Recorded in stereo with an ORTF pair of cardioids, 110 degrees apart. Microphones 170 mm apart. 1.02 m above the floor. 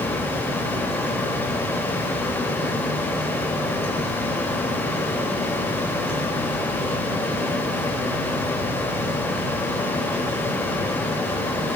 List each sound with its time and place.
0.0 s a fan: 10° left, 2.5 m